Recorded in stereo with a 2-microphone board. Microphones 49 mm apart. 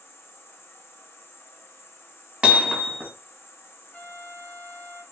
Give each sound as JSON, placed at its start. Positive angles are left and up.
{"t": 0.0, "sound": "an insect", "side_deg": 55, "distance_m": 0.8}
{"t": 2.4, "sound": "hammering", "side_deg": -25, "distance_m": 1.0}
{"t": 3.9, "sound": "a trumpet", "side_deg": 35, "distance_m": 1.0}